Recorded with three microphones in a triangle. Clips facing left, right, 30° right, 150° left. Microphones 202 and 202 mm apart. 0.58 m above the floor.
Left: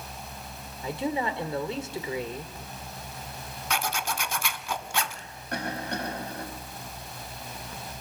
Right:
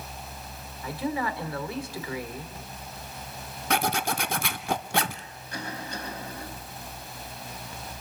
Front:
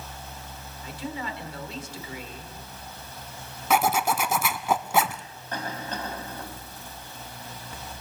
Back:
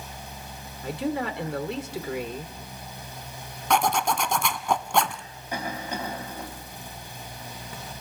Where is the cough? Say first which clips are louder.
Left 4 dB, back 2 dB; 70° left, 4.5 m.